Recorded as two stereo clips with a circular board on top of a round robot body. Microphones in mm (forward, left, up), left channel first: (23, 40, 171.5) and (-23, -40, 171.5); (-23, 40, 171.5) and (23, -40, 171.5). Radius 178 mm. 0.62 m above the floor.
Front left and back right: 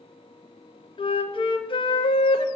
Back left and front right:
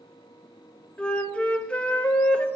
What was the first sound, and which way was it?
A flute, 45° left.